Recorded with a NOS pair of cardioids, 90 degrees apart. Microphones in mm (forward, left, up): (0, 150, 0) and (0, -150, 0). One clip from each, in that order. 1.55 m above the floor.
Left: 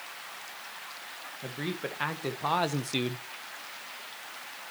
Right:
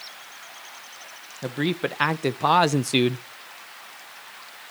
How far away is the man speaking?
About 1.8 m.